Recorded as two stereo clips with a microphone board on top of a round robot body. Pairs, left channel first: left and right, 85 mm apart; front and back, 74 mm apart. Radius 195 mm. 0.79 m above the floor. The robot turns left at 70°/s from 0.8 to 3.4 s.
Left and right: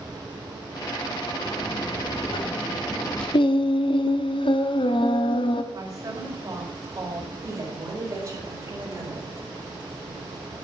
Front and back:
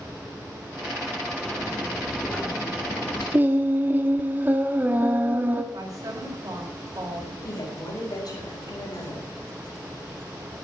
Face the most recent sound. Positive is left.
turn(degrees=-35)